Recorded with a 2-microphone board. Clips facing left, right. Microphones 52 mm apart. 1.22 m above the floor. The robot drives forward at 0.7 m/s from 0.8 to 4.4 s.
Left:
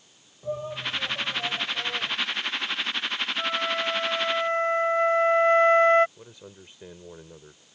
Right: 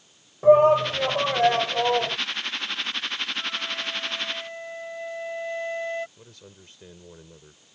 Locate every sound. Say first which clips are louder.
0.4 s a shout: right 17 dB; 75° right (ahead or behind); by 2.2 s 80° right
3.4 s a flute: left 4 dB; 40° left (ahead or behind); by 6.1 s 55° left (ahead or behind)
6.2 s a man speaking: left 3 dB; 15° left (ahead or behind)